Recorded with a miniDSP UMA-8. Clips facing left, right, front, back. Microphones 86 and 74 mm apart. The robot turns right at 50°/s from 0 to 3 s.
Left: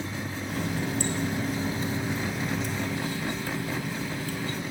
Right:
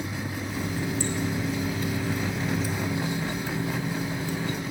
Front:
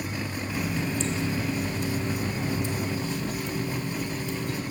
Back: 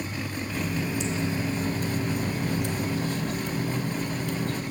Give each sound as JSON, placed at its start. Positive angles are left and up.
{"t": 0.5, "sound": "a running tap", "azimuth_deg": 75, "distance_m": 1.4}